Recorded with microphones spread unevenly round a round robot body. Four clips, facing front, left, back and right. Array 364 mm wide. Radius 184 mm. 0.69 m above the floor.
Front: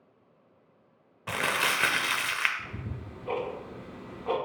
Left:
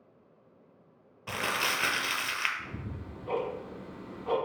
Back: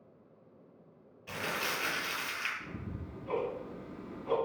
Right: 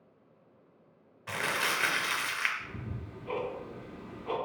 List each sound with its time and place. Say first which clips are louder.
1.3 s crumpling: even, front 7 dB; 20° left, 0.6 m
2.6 s ticking: left 1 dB, front 2 dB; 25° left, 1.4 m